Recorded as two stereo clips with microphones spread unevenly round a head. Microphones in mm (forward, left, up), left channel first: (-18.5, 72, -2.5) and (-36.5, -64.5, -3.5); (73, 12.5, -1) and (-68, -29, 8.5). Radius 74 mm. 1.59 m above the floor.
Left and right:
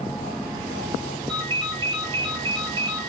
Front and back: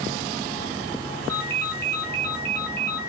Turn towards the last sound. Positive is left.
turn(degrees=-60)